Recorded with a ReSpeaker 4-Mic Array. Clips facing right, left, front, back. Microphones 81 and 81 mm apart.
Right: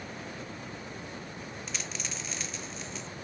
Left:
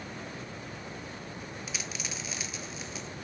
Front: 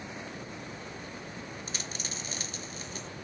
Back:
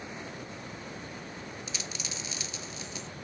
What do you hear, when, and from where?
1.7 s a dropped coin: 10° left, 0.8 m